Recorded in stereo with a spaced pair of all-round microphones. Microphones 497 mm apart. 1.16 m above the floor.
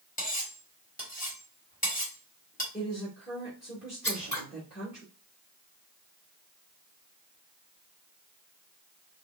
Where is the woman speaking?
Centre (ahead or behind), 1.9 m.